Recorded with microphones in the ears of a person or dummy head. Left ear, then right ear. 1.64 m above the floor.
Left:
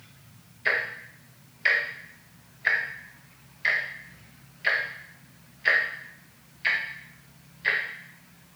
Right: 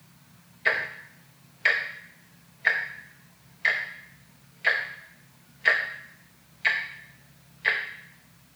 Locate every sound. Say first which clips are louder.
0.7 s ticking: even; 20° right (ahead or behind), 0.9 m